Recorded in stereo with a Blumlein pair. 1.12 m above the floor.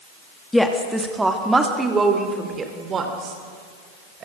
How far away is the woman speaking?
About 2 m.